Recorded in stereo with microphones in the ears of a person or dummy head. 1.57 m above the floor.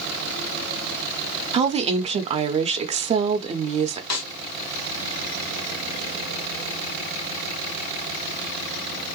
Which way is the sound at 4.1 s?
75° left (ahead or behind).